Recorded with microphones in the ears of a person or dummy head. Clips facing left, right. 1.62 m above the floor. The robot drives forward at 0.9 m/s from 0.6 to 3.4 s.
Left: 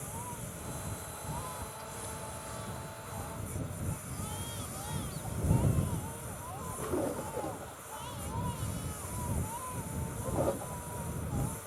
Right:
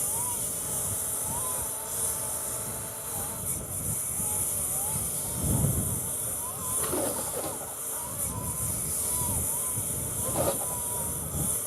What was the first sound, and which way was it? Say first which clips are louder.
A lawn mower: right 3 dB; 55° right (ahead or behind).